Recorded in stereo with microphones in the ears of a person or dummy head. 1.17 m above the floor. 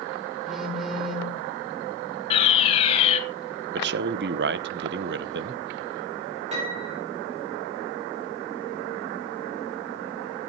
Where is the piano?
30° right (ahead or behind), 4.5 m.